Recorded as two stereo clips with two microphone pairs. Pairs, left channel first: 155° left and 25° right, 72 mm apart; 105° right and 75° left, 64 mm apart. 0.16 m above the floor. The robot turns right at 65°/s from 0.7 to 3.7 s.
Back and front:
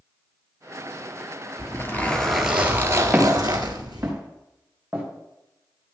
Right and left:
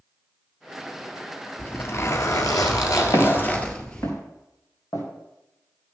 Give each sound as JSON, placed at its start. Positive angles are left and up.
{"t": 1.6, "sound": "a zipper", "azimuth_deg": -165, "distance_m": 1.5}
{"t": 3.1, "sound": "footsteps", "azimuth_deg": -105, "distance_m": 5.0}